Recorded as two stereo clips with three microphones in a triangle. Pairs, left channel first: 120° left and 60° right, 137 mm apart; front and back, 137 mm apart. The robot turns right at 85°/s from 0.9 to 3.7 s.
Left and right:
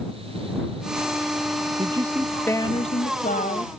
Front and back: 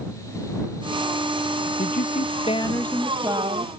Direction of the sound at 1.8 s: 10° right.